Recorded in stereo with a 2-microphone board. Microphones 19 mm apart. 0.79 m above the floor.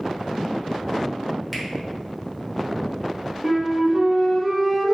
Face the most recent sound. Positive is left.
turn(degrees=-30)  # may be behind; listen again after turning